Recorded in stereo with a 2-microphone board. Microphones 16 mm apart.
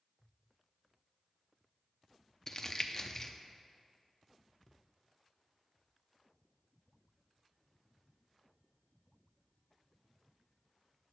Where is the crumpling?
30° left (ahead or behind), 0.6 m.